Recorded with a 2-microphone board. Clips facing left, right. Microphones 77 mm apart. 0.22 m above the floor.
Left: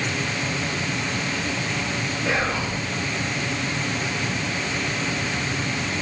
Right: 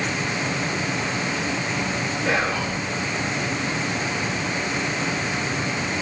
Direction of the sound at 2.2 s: 70° right (ahead or behind).